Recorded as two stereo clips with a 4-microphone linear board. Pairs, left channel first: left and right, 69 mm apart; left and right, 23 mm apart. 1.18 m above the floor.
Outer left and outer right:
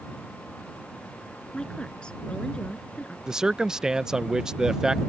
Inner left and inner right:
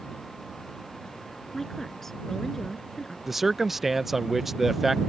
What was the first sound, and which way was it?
A woman speaking, 15° left (ahead or behind).